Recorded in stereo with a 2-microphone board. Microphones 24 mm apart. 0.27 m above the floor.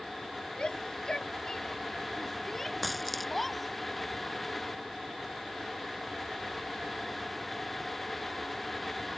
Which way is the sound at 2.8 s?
Centre (ahead or behind).